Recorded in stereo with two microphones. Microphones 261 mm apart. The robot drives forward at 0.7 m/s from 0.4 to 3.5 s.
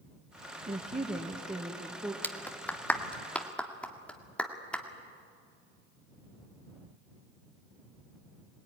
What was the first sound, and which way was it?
A woman speaking, 30° right (ahead or behind).